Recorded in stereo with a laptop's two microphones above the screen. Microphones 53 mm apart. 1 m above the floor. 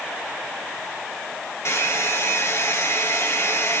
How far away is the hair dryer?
About 1.7 m.